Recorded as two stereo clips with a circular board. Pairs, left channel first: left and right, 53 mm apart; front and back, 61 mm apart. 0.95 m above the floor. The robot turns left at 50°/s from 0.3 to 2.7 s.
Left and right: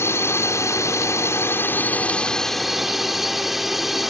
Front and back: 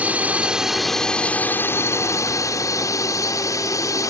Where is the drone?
115° left; by 4.1 s 5° right.